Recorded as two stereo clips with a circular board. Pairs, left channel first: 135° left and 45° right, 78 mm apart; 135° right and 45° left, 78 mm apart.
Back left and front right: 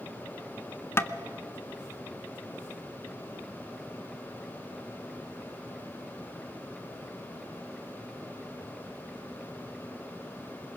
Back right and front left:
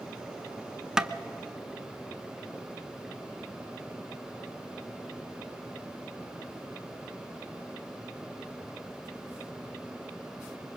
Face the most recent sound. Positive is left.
turn(degrees=120)